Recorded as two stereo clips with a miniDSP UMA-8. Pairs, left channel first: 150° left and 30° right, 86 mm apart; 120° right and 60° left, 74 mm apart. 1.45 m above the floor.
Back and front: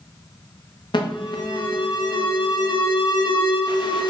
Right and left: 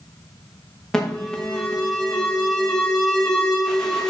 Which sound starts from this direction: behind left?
An alarm, at 0.9 s.